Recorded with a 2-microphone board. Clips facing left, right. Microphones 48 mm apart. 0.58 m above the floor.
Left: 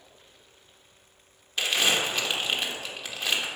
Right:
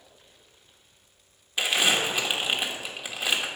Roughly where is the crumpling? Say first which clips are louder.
Right 1 dB; centre.